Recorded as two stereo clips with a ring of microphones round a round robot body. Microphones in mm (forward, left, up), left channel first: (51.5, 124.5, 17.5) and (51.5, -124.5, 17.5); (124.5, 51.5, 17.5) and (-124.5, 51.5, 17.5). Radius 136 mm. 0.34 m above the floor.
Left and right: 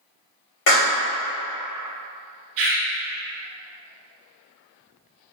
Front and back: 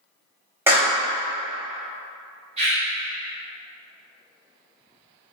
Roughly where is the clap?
Left.